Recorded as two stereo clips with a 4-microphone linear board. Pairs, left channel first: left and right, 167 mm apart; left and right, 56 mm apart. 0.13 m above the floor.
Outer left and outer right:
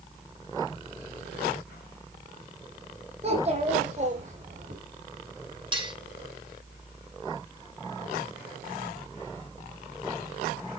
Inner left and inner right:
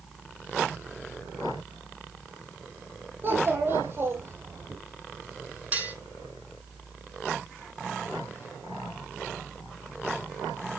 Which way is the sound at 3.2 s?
40° right (ahead or behind).